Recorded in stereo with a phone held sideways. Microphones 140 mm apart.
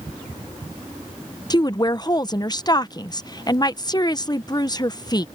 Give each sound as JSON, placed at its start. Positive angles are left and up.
{"t": 1.5, "sound": "a woman speaking", "side_deg": 30}